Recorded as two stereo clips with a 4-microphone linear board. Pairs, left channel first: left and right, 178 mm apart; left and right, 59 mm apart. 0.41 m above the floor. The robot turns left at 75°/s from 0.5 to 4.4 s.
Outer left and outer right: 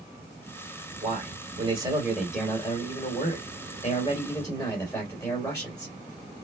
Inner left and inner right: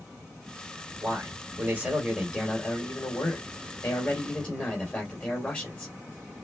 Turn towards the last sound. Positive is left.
turn(degrees=30)